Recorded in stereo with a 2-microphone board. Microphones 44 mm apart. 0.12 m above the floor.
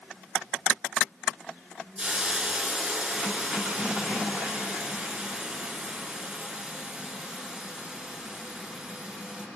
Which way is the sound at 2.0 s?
15° right (ahead or behind).